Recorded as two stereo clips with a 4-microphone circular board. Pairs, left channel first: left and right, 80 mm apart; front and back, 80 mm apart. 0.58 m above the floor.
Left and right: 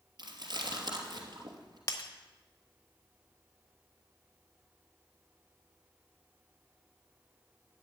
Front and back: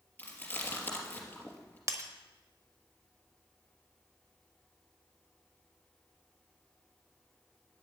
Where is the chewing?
65° right, 2.5 m.